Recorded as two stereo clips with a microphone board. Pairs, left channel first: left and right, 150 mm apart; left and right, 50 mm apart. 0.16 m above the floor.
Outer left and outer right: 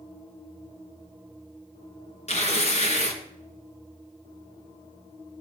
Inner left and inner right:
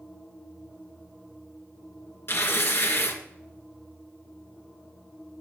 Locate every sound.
2.3 s tearing paper: 50° left (ahead or behind), 1.8 m